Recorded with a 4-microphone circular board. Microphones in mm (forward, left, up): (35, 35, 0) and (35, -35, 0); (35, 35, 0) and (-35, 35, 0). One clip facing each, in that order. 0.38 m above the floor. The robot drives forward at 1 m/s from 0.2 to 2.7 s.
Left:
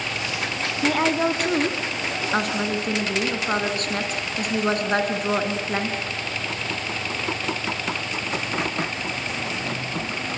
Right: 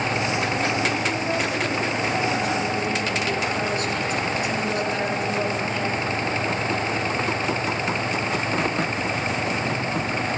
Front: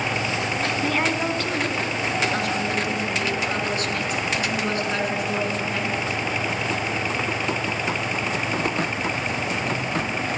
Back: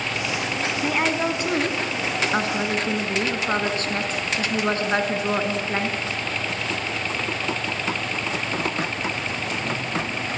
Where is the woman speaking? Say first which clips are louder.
Left 3 dB, back 2 dB; 95° left, 3 m; by 6.0 s 125° left, 4 m.